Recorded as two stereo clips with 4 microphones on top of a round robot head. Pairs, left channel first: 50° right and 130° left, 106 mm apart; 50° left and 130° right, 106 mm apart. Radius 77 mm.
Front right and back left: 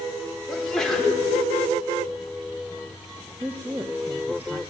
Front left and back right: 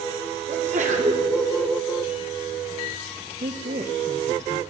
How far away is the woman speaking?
About 1.2 m.